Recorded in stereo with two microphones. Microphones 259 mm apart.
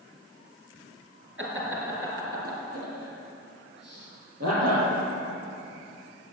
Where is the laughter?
50° right (ahead or behind), 4 m; by 4.9 s 75° right (ahead or behind), 5.5 m.